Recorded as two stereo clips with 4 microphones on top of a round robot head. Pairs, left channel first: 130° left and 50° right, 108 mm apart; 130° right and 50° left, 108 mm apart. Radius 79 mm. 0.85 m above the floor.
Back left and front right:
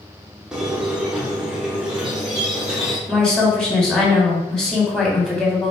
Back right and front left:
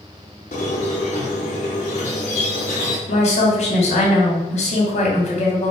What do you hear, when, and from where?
0.5 s a squeak: 130° right, 0.6 m
3.1 s a woman speaking: 145° right, 1.4 m